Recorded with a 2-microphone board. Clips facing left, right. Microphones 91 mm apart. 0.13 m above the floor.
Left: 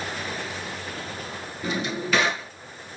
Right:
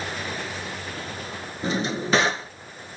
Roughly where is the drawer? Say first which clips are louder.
Right 2 dB; right.